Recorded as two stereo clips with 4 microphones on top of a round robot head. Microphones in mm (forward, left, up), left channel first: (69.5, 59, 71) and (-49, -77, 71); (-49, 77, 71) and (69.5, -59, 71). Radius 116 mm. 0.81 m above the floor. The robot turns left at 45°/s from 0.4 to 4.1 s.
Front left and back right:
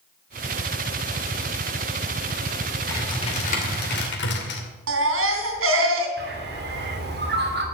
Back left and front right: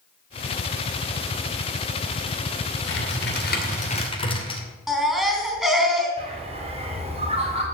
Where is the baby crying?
135° right, 3 m.